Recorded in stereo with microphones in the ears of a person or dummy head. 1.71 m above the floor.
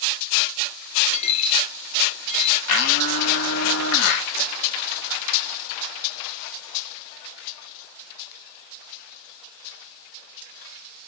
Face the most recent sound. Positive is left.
turn(degrees=80)